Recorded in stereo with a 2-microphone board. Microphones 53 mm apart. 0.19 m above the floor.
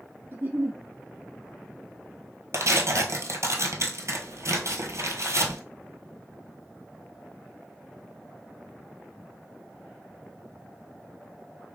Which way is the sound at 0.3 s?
40° right (ahead or behind).